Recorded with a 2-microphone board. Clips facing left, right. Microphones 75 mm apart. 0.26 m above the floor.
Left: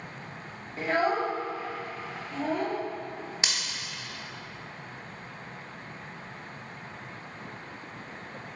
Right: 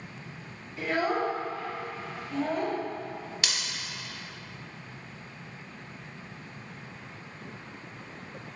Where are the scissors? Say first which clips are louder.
Left 1 dB; 25° left (ahead or behind), 0.7 m.